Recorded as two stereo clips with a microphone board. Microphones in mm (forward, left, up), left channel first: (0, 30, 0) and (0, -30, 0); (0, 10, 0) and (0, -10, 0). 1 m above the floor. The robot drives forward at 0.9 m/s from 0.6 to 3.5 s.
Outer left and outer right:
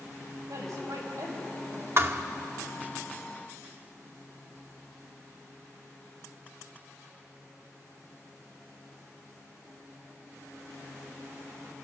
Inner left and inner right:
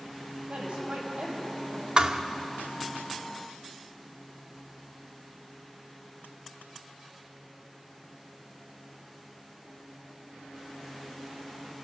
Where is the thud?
45° right (ahead or behind), 0.8 m; by 2.2 s 40° right (ahead or behind), 1.0 m.